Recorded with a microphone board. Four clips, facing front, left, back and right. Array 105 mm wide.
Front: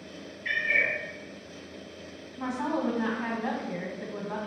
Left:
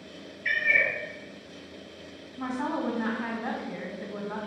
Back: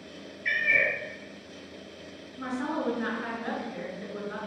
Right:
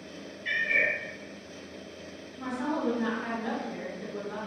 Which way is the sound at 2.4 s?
35° left.